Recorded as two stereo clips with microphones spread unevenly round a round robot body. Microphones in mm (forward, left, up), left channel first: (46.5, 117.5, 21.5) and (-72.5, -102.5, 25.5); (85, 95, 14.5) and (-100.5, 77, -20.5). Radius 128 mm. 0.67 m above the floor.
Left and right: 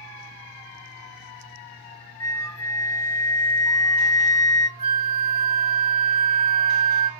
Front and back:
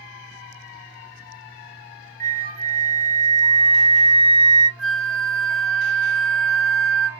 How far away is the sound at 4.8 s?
About 0.8 m.